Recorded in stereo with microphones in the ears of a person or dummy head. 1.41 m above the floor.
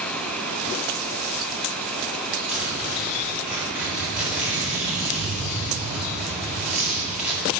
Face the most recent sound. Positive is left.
turn(degrees=-5)  # may be behind; listen again after turning